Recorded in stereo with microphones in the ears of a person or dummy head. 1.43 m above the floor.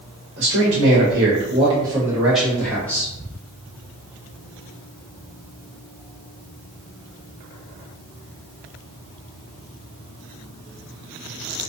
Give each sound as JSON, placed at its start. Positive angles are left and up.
{"t": 0.4, "sound": "a man speaking", "side_deg": -60, "distance_m": 0.9}